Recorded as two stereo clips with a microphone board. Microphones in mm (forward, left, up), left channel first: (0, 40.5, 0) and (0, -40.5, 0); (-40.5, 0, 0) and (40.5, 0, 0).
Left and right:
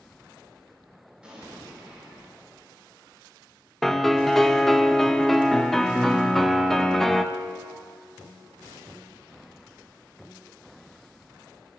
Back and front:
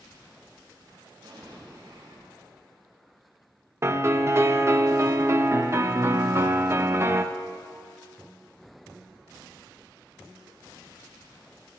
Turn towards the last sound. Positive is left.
turn(degrees=10)